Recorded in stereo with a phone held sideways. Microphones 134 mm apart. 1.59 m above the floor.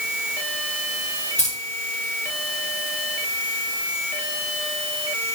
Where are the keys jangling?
55° left (ahead or behind), 4.5 m.